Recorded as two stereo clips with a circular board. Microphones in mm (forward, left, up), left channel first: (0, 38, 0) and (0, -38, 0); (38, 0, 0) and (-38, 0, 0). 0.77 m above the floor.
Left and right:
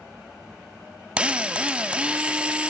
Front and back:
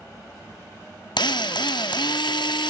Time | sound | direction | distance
1.2 | a drill | 15° right | 0.5 m